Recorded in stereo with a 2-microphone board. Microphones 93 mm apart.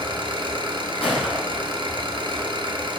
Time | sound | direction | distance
0.0 | an engine running | 60° right (ahead or behind) | 1.2 m
1.0 | a gunshot | 75° left (ahead or behind) | 2.5 m